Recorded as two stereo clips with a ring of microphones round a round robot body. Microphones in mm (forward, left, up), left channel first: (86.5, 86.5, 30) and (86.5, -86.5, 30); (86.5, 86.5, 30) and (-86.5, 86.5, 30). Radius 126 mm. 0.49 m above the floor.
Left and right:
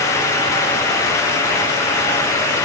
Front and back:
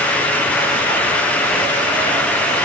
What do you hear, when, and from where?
Only background noise.